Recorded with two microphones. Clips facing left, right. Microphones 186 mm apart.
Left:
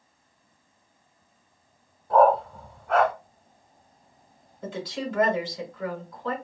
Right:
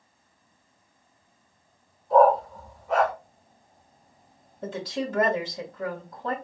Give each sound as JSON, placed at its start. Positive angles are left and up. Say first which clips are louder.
{"t": 2.1, "sound": "a dog barking", "louder": "right 1 dB", "side_deg": 85, "distance_m": 1.3}
{"t": 4.6, "sound": "a woman speaking", "louder": "right 2 dB", "side_deg": -40, "distance_m": 1.2}